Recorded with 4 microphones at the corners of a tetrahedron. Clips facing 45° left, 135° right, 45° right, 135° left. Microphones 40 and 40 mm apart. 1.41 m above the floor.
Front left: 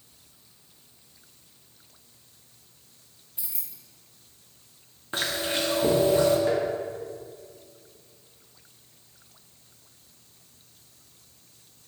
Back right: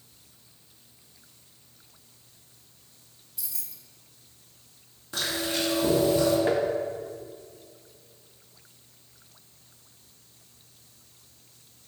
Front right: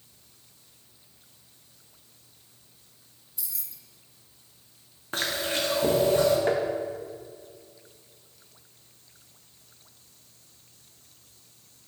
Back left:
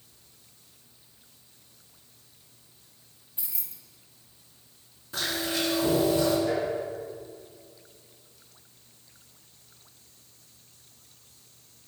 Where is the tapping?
75° right, 1.1 m.